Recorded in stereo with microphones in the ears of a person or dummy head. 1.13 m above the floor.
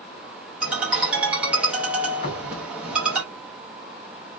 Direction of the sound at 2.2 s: 55° left (ahead or behind).